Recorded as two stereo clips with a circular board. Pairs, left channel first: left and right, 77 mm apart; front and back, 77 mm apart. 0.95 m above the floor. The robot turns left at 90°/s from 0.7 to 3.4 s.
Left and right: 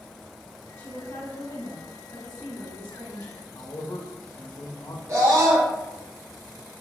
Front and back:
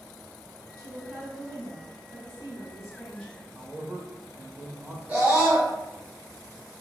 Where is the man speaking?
125° left, 0.9 m.